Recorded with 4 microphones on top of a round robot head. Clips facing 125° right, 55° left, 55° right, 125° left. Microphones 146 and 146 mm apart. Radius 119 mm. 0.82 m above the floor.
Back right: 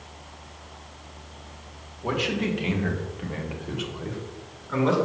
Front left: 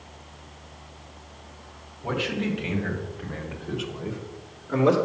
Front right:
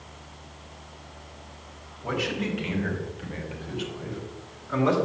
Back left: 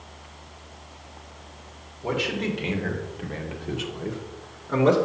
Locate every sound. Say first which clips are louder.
2.0 s a man speaking: back right 1 dB, back left 2 dB; 170° right, 2 m; by 5.0 s 85° left, 1.4 m